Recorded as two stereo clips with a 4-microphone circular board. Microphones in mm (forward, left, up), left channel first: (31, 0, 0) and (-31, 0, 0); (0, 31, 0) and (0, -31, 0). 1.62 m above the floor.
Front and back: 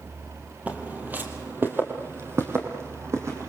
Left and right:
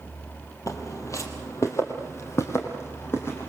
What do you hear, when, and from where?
0.7 s footsteps: 115° left, 3 m; by 3.5 s 140° left, 5 m